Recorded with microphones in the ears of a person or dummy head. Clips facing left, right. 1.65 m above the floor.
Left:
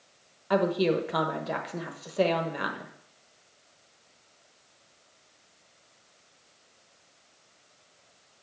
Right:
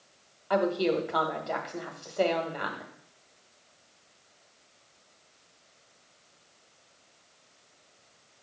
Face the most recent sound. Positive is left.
turn(degrees=25)  # may be behind; listen again after turning